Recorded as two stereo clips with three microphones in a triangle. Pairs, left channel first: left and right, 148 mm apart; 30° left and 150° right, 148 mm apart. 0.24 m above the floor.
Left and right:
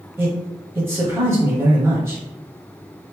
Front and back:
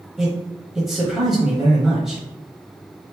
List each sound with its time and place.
0.2 s a man speaking: 65° right, 1.1 m